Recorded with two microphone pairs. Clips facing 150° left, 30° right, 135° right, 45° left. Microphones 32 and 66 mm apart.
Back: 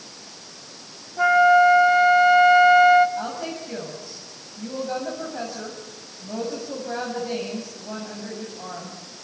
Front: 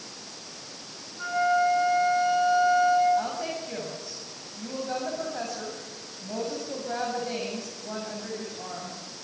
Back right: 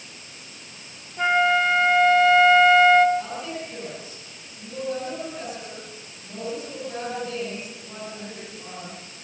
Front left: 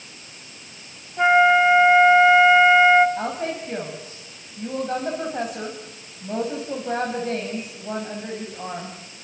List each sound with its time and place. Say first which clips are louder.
1.2 s a flute: back 9 dB, front left 5 dB; 110° left, 1.7 m
3.2 s a woman speaking: even, front left 3 dB; 60° left, 7 m